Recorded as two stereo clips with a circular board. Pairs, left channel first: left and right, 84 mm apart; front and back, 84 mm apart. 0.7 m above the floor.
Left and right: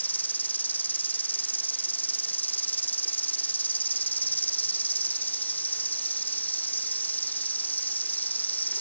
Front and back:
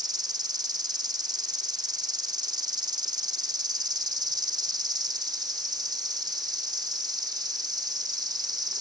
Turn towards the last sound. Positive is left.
turn(degrees=155)